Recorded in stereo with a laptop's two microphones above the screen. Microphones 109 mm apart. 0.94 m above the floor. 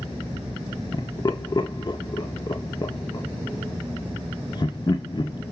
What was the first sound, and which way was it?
Laughter, 40° left (ahead or behind).